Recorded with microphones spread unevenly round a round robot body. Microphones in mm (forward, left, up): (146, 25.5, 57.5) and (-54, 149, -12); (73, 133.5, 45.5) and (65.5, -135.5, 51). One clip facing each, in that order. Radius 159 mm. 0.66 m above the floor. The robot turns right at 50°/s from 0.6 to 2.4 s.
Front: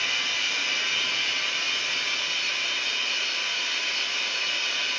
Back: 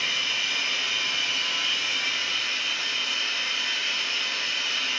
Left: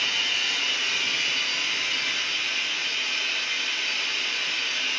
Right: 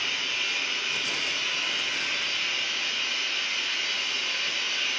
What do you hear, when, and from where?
0.0 s running water: 95° left, 3.5 m; by 5.0 s 175° right, 3.5 m